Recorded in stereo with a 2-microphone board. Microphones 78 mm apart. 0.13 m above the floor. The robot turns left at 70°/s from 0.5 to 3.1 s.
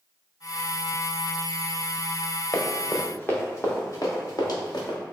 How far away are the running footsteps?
About 1.0 m.